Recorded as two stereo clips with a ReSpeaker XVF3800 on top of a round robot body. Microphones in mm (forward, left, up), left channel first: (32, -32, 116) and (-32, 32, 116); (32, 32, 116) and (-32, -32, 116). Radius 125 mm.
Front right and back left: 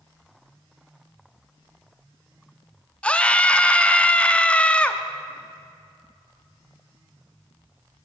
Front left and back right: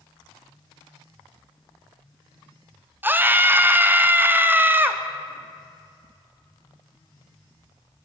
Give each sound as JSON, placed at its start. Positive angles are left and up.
{"t": 3.0, "sound": "a scream", "azimuth_deg": -105, "distance_m": 0.9}